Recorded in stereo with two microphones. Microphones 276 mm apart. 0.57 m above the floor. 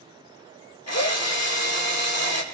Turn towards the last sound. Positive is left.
turn(degrees=65)  # may be behind; listen again after turning